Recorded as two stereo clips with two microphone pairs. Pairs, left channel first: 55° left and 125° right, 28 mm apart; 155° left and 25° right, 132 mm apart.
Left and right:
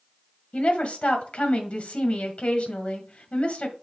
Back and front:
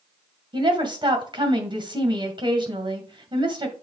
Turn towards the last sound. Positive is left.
turn(degrees=20)